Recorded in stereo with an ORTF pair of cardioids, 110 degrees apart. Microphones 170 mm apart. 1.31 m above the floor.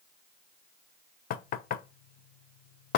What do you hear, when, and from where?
1.3 s knocking: 60° left, 0.5 m